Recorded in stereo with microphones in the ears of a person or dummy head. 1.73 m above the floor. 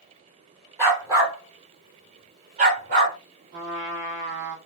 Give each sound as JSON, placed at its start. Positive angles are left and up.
{"t": 0.8, "sound": "a dog barking", "side_deg": -15, "distance_m": 2.0}
{"t": 3.5, "sound": "a trumpet", "side_deg": -55, "distance_m": 1.4}